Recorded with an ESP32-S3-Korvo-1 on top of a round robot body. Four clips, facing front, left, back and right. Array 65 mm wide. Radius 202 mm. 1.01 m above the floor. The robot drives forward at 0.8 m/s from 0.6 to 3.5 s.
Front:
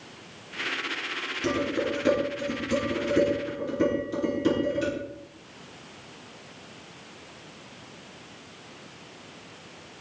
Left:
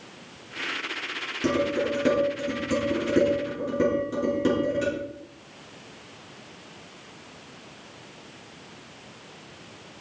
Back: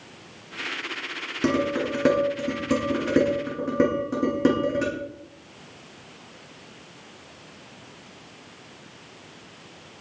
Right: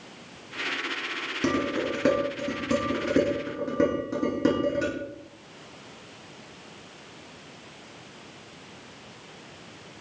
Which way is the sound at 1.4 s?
155° right.